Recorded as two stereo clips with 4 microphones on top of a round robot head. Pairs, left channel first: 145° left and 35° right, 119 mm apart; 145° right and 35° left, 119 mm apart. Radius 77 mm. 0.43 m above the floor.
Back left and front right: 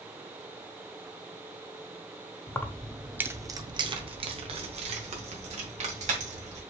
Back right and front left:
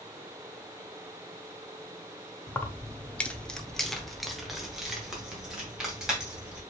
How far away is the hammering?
I don't hear hammering.